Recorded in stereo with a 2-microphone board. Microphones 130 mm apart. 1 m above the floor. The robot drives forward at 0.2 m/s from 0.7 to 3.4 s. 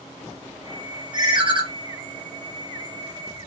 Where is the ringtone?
35° right (ahead or behind), 0.7 m; by 1.6 s 40° right (ahead or behind), 0.6 m.